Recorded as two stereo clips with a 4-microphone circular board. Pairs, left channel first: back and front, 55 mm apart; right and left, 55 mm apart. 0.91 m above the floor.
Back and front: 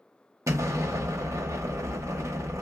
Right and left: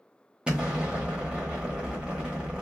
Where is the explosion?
15° left, 1.2 m.